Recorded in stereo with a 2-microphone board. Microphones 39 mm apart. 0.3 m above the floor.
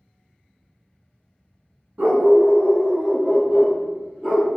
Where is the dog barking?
50° right (ahead or behind), 0.9 m; by 4.5 s 5° right (ahead or behind), 2 m.